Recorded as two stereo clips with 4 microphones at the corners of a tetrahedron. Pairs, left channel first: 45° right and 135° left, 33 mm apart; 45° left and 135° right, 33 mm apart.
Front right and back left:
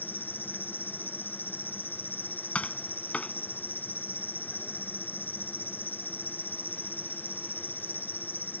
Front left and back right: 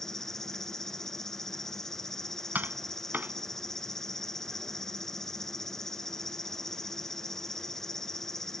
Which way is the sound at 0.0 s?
35° right.